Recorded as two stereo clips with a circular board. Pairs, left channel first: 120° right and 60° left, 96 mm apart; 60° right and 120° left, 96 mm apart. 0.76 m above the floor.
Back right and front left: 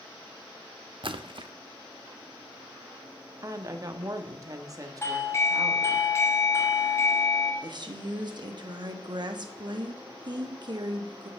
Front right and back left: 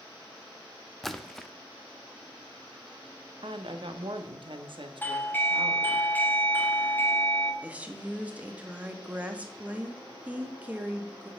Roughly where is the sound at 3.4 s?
Left.